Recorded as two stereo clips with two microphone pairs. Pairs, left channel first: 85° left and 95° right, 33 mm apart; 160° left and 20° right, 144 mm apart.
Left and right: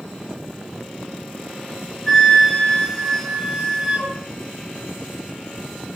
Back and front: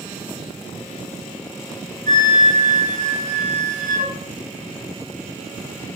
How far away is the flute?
About 3 m.